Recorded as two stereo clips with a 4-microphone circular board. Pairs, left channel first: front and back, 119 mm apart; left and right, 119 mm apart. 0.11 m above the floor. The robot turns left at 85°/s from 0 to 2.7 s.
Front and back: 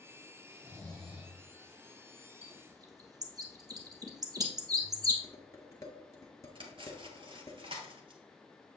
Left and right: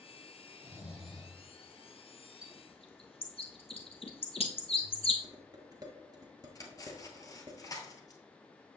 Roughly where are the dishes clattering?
Ahead right.